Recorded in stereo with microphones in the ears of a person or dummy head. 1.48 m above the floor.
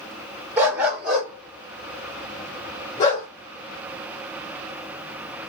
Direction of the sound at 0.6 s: 10° right (ahead or behind).